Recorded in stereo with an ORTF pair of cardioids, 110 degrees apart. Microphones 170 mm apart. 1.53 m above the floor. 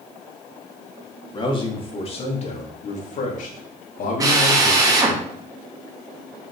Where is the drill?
20° right, 2.5 m.